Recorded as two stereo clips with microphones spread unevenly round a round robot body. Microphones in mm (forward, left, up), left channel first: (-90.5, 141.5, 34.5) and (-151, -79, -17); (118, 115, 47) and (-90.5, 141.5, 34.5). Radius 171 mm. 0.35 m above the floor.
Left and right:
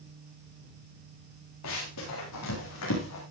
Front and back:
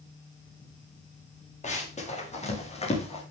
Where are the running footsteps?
50° left, 9 m; by 3.2 s 55° left, 7.5 m.